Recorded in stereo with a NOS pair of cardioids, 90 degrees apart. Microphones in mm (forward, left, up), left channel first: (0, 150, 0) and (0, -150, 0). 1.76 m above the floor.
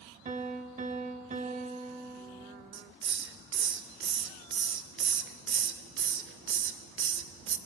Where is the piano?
25° right, 0.6 m.